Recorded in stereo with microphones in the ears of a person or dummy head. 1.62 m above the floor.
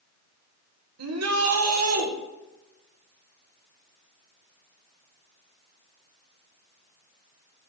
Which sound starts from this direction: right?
A shout, at 1.0 s.